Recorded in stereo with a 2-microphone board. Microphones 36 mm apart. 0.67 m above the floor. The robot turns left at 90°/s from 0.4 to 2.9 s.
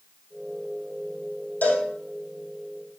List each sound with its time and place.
1.6 s a cowbell: 60° left (ahead or behind), 3.5 m; by 1.9 s 35° left (ahead or behind), 3.5 m